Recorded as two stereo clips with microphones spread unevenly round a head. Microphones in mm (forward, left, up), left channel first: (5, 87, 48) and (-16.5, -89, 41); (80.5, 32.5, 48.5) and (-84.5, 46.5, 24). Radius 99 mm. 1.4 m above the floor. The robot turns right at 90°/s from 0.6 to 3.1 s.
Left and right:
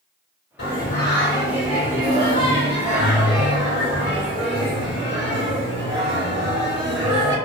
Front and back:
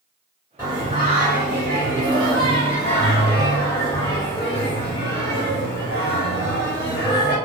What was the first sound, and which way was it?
Singing, 100° left.